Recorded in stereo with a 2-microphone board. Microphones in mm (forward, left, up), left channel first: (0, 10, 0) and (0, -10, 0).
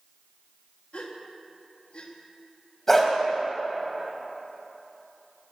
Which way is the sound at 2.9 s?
15° left (ahead or behind).